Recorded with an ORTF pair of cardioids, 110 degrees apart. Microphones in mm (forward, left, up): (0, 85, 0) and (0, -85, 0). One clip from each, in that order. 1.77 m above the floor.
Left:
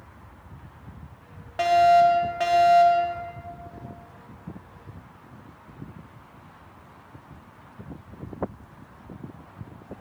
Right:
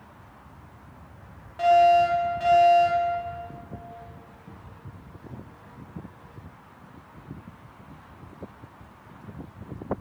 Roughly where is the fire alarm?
Ahead left.